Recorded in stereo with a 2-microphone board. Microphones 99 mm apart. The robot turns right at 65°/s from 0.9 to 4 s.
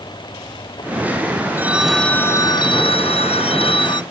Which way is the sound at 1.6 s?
20° right.